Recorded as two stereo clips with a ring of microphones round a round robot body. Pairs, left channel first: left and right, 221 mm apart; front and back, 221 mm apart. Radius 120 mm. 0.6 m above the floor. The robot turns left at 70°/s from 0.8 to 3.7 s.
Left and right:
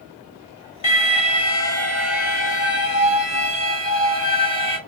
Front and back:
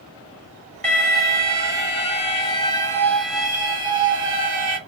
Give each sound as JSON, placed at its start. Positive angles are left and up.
{"t": 0.8, "sound": "an alarm", "azimuth_deg": 85, "distance_m": 1.6}